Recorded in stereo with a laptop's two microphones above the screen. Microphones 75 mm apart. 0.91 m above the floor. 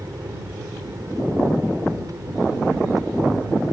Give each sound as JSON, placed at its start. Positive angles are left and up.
{"t": 0.0, "sound": "an aircraft", "side_deg": -50}